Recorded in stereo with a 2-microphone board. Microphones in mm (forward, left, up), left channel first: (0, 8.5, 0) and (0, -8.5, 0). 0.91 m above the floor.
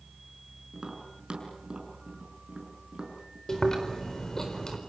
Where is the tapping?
45° right (ahead or behind), 6 m.